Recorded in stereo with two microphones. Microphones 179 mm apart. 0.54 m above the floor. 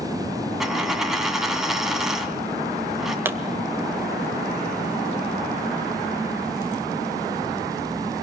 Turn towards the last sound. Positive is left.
turn(degrees=-10)  # may be behind; listen again after turning